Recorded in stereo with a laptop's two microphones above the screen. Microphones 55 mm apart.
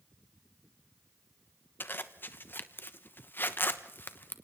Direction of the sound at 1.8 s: 40° left (ahead or behind).